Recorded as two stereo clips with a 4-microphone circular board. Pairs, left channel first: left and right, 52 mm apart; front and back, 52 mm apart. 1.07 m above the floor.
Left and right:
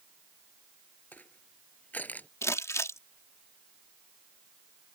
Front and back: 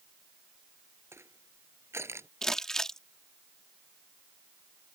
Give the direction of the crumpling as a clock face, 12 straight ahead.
9 o'clock.